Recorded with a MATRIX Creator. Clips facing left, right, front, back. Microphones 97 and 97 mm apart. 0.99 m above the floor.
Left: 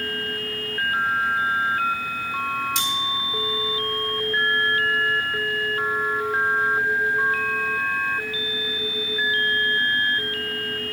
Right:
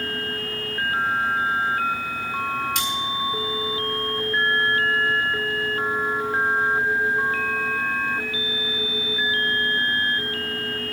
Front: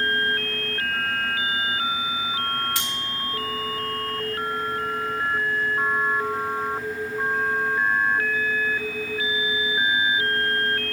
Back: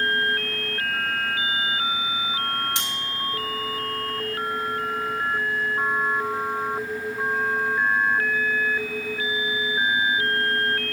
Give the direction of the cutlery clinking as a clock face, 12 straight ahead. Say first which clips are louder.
Even, even; 4 o'clock.